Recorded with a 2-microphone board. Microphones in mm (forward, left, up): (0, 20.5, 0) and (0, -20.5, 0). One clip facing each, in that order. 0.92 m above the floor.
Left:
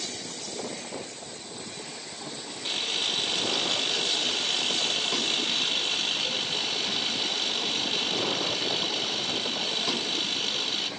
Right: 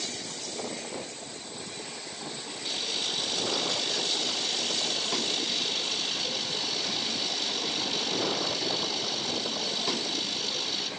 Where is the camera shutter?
45° left (ahead or behind), 1.4 m.